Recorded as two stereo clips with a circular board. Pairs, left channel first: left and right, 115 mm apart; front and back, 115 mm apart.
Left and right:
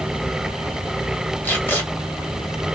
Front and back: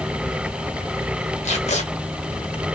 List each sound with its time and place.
1.4 s tape being pulled: 15° left, 2 m